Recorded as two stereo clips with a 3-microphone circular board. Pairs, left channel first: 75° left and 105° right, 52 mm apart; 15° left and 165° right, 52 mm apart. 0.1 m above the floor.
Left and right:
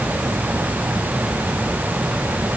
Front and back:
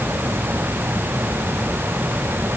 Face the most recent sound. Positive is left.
No sound to turn to.